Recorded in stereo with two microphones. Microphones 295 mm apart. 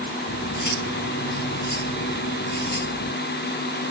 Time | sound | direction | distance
0.3 | cutlery clinking | 85° left | ?